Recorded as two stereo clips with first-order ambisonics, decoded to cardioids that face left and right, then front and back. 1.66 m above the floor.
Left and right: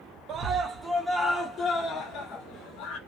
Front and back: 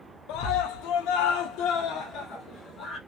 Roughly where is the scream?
Ahead right.